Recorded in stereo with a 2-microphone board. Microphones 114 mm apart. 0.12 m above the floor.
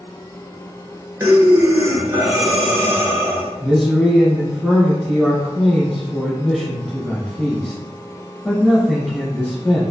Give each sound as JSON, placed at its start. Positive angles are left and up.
{"t": 1.2, "sound": "breathing", "side_deg": -25, "distance_m": 0.9}
{"t": 3.6, "sound": "a man speaking", "side_deg": 5, "distance_m": 1.3}